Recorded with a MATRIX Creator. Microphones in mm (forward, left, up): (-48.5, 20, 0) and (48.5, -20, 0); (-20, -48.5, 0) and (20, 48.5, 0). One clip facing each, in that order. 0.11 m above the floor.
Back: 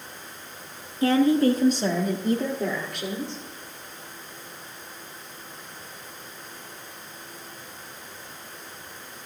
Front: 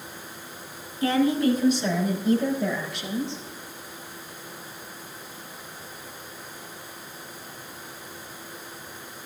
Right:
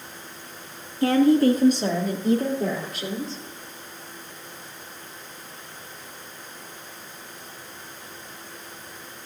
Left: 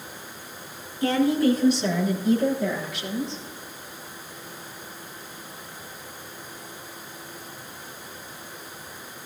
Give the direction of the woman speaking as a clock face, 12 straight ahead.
5 o'clock.